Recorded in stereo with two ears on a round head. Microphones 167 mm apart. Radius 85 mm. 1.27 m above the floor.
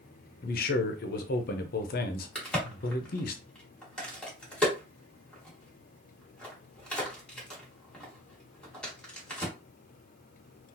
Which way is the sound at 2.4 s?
5° left (ahead or behind).